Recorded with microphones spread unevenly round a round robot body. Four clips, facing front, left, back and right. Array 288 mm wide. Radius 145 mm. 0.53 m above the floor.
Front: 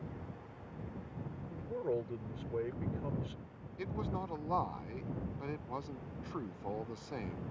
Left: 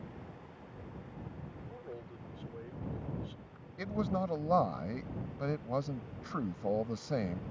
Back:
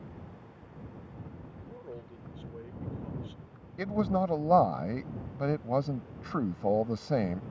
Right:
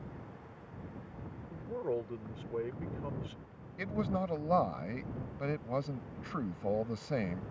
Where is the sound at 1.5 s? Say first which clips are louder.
Right 16 dB, front 11 dB; 45° right.